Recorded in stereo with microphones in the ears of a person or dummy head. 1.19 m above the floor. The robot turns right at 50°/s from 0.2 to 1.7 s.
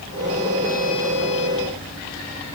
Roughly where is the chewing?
I don't hear chewing.